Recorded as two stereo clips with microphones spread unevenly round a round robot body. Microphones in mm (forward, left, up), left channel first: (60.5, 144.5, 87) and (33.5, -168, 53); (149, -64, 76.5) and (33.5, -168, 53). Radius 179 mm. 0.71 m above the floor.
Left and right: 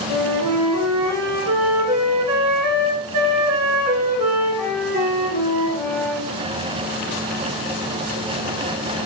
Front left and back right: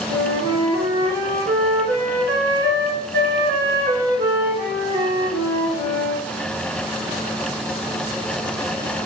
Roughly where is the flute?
Behind right.